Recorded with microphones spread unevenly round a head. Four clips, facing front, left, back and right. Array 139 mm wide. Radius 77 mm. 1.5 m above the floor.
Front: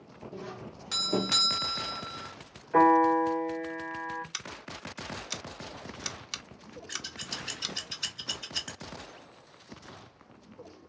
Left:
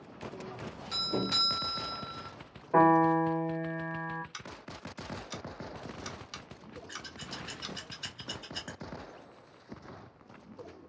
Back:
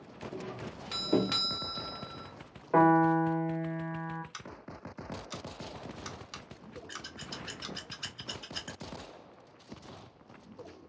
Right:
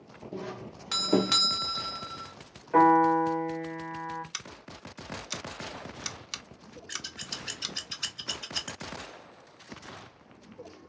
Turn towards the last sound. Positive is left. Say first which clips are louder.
# right 2 dB, front 4 dB
turn(degrees=-75)